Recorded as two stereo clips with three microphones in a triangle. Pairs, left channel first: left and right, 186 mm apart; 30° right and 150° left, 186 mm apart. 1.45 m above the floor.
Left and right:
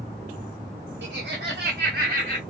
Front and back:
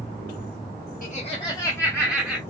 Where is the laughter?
75° right, 0.5 m; by 2.4 s 125° right, 1.0 m.